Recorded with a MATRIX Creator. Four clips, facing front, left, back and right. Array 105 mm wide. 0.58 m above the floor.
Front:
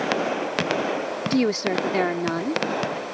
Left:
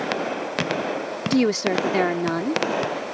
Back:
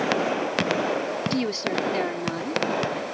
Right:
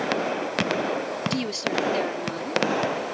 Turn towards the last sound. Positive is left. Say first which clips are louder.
# left 12 dB, front 8 dB
turn(degrees=60)